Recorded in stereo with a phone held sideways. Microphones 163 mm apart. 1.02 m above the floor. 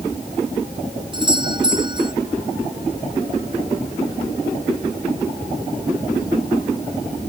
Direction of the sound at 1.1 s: 30° right (ahead or behind).